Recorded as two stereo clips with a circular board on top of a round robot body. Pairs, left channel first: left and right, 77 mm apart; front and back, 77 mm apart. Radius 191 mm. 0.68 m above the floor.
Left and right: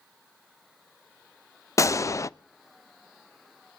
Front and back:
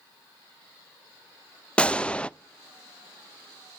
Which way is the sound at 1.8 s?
70° left.